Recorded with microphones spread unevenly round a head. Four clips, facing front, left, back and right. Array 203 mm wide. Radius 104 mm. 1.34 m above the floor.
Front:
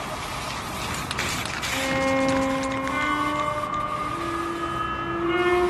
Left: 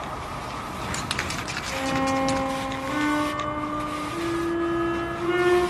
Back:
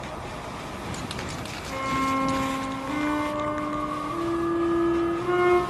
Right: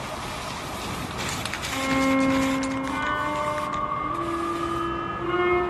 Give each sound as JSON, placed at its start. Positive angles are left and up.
{"t": 1.7, "sound": "a violin", "azimuth_deg": -170, "distance_m": 3.0}